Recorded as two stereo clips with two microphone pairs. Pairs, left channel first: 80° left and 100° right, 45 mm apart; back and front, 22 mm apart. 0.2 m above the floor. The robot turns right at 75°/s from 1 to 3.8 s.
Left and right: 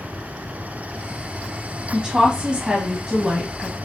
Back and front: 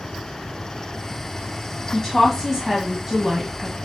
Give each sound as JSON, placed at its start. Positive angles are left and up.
{"t": 1.9, "sound": "a woman speaking", "azimuth_deg": -130, "distance_m": 1.4}